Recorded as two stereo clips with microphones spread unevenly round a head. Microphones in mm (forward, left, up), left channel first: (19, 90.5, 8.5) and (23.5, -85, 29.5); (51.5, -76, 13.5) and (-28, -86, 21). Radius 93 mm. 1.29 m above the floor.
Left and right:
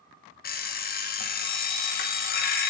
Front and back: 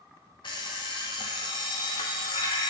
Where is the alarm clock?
55° left, 0.5 m.